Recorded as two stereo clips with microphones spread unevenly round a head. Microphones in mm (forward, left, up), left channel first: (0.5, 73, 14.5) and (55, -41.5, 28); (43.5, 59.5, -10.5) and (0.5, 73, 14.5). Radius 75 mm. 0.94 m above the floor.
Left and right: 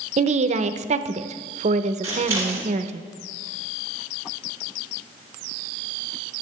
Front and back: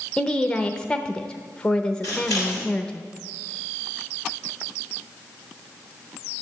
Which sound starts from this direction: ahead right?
A woman speaking, at 0.2 s.